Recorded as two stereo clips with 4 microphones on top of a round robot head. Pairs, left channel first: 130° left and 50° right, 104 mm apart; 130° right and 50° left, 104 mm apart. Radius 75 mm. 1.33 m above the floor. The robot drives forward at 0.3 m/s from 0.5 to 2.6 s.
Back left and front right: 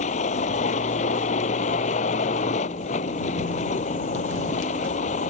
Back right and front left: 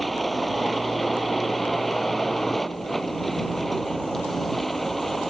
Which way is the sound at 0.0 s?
140° left.